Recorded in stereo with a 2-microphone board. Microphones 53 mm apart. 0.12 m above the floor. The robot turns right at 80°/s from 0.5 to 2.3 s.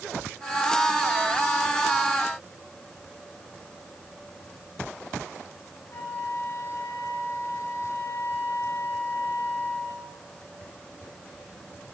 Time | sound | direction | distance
5.9 | a flute | 45° left (ahead or behind) | 1.3 m